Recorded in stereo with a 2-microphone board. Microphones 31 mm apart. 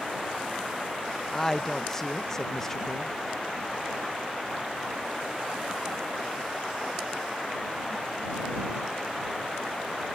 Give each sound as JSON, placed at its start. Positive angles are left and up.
{"t": 1.3, "sound": "a woman speaking", "side_deg": 10}